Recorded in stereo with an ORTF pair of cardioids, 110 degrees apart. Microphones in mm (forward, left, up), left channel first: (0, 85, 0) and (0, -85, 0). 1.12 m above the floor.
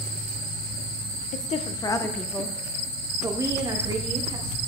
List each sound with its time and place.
1.3 s a woman speaking: 50° left, 0.6 m; by 4.6 s 30° right, 1.8 m